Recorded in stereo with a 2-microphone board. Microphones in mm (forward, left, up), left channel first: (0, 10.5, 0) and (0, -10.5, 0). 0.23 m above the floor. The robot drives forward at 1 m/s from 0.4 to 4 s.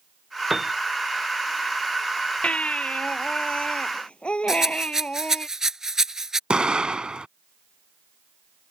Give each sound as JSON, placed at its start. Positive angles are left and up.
{"t": 0.5, "sound": "a piano", "side_deg": -15}
{"t": 2.4, "sound": "a baby crying", "side_deg": 80}
{"t": 4.5, "sound": "a rattle", "side_deg": -20}
{"t": 6.5, "sound": "an explosion", "side_deg": -45}